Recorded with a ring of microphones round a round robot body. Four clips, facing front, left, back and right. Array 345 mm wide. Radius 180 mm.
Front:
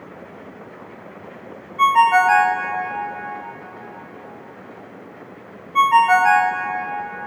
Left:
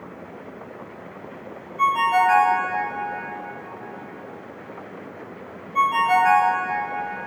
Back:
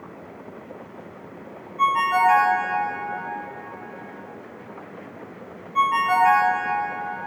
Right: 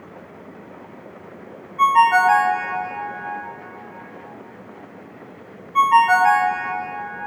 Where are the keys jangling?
I don't hear keys jangling.